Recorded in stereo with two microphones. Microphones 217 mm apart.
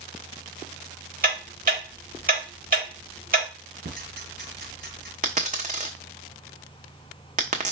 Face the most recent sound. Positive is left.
turn(degrees=-35)  # may be behind; listen again after turning